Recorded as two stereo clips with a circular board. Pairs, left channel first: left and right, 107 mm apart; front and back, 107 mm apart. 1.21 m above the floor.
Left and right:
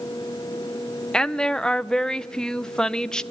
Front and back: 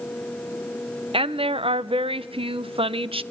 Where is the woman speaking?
175° left, 0.7 m.